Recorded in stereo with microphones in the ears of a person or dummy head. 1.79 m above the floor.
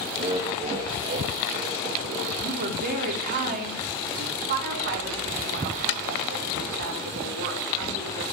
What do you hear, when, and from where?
0.2 s laughter: 25° right (ahead or behind), 0.7 m; by 2.4 s 30° right (ahead or behind), 1.9 m
2.4 s a woman speaking: 40° right (ahead or behind), 1.2 m
4.5 s a woman speaking: 50° right (ahead or behind), 1.4 m